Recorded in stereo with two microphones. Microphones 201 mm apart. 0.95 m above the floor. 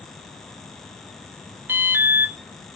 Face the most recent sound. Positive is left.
turn(degrees=-10)  # may be behind; listen again after turning